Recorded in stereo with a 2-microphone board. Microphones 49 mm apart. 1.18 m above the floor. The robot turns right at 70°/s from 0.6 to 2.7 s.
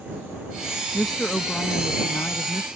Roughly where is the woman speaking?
Ahead.